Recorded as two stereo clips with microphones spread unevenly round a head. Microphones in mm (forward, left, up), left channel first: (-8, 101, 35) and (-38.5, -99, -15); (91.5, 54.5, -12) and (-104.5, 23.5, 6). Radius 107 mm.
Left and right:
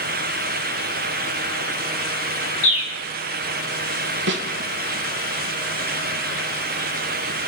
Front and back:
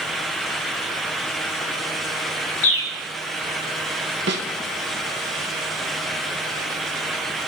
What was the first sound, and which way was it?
A bird, 20° left.